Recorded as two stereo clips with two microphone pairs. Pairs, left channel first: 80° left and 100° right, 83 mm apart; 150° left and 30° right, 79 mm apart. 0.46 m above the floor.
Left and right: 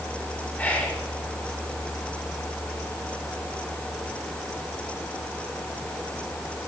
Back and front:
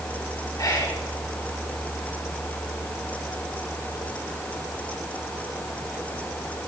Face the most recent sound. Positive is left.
turn(degrees=145)